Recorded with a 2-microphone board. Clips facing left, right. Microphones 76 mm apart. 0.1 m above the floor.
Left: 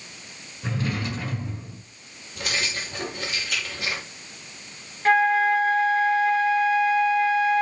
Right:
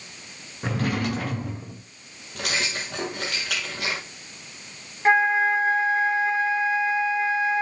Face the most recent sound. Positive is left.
turn(degrees=-25)  # may be behind; listen again after turning